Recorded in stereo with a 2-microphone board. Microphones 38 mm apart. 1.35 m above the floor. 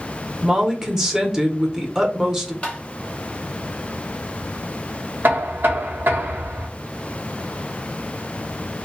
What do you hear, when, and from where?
0.4 s a woman speaking: 10° right (ahead or behind), 0.8 m
2.6 s tapping: 30° left (ahead or behind), 0.7 m
5.2 s knocking: 65° right (ahead or behind), 0.9 m